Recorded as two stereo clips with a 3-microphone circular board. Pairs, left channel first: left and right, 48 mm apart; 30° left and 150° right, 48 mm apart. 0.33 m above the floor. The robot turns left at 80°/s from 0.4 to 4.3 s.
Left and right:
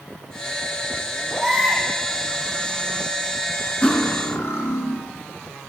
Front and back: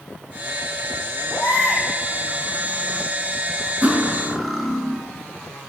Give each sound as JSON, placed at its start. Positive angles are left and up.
{"t": 1.3, "sound": "a baby crying", "azimuth_deg": 5, "distance_m": 4.0}
{"t": 3.8, "sound": "cutlery clinking", "azimuth_deg": 160, "distance_m": 2.5}